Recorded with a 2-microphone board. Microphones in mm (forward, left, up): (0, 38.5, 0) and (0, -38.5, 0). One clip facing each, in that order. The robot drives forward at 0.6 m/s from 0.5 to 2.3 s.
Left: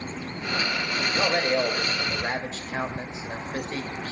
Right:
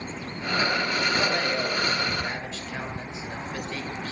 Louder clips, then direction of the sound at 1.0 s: Left 4 dB; 30° left (ahead or behind).